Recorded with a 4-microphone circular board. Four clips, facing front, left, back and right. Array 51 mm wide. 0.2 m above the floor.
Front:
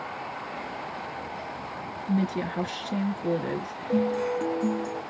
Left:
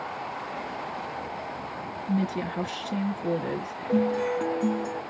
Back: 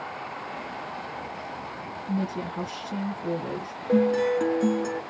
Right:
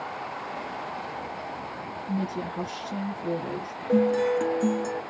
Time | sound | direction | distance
2.1 | a woman speaking | 35° left | 3 m
3.9 | a guitar | 165° right | 0.7 m